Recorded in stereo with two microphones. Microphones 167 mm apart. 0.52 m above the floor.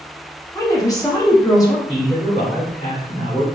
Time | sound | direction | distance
0.6 | a woman speaking | 20° left (ahead or behind) | 0.9 m
1.9 | a man speaking | 30° left (ahead or behind) | 1.5 m